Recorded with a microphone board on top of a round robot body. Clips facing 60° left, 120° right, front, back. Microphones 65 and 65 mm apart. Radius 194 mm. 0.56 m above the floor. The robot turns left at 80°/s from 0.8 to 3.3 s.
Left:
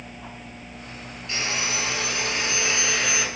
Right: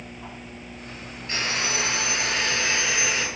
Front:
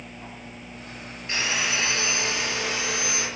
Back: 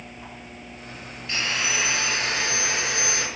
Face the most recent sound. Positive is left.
turn(degrees=135)